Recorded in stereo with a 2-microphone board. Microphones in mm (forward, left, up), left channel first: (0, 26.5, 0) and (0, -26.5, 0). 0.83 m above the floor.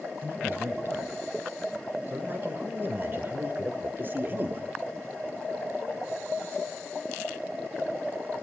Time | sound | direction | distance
0.2 | a man speaking | 40° right (ahead or behind) | 5 m